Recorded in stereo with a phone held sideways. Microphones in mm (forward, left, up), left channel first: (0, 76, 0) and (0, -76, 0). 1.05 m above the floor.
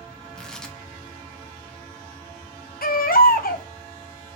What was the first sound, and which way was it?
Tearing paper, 5° left (ahead or behind).